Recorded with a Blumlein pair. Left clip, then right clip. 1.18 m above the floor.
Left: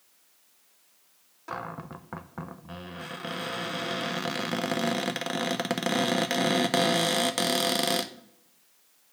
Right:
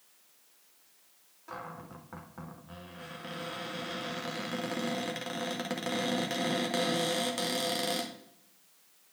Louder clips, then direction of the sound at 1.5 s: Left 6 dB; 25° left.